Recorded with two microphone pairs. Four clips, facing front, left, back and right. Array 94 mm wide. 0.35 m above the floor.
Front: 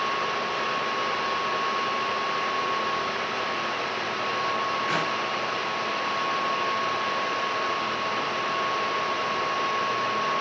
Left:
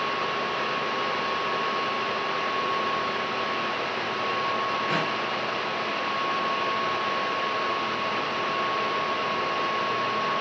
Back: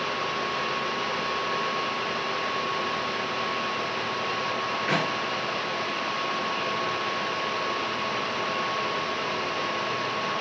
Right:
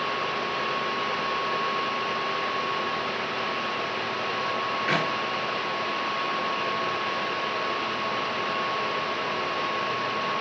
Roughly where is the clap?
Right.